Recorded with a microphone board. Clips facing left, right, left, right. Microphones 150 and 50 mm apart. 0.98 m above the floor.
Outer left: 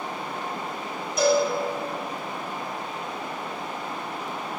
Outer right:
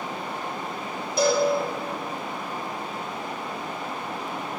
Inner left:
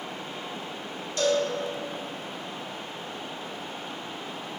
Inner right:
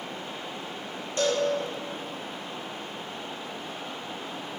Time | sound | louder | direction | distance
1.2 | a cowbell | outer left 1 dB, inner left 1 dB | 35° right (ahead or behind) | 1.6 m